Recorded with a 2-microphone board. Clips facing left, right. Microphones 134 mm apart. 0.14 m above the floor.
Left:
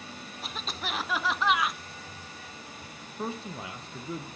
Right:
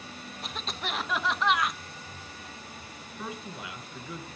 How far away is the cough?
About 1.1 m.